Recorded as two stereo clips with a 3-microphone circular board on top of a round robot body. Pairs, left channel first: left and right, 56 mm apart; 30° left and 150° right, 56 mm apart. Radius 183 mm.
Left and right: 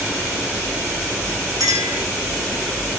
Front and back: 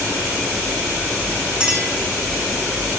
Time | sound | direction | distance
1.6 | a clink | 75° right | 6 m